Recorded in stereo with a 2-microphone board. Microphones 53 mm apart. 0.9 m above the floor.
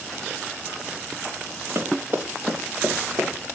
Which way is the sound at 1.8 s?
45° right (ahead or behind).